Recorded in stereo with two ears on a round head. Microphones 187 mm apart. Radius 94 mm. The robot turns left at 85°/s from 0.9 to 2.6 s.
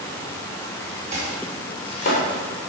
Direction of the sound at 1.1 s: 35° right (ahead or behind).